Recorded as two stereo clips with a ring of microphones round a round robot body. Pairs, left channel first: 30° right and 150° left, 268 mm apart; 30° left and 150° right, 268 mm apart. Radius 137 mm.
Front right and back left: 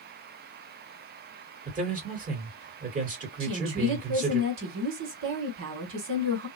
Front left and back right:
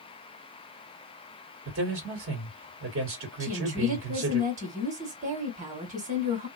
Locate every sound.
1.6 s a man speaking: 160° right, 2 m
3.4 s a woman speaking: 155° left, 1.8 m